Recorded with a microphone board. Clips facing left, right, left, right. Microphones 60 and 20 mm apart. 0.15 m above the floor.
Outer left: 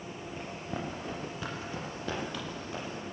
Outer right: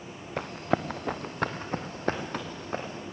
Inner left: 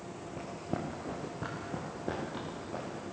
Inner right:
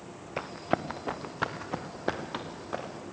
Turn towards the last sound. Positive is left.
turn(degrees=-40)  # may be behind; listen again after turning